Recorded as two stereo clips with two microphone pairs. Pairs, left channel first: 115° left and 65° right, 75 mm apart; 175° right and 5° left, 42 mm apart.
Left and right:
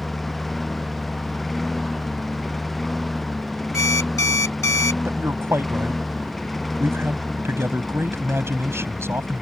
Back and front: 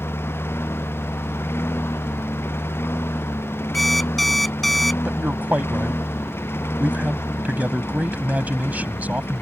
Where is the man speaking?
25° right.